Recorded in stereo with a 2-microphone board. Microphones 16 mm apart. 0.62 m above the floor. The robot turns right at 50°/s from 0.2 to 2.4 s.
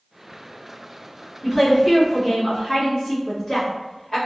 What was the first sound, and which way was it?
A woman speaking, 10° left (ahead or behind).